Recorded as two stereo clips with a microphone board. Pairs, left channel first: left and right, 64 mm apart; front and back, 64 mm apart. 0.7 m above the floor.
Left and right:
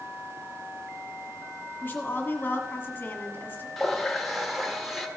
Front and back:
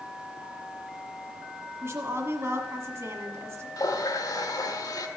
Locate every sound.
1.8 s a woman speaking: 145° left, 1.5 m
3.8 s a running tap: straight ahead, 1.2 m